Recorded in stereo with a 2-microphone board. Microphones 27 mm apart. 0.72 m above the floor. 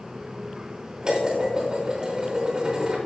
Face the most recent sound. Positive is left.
turn(degrees=-30)  # may be behind; listen again after turning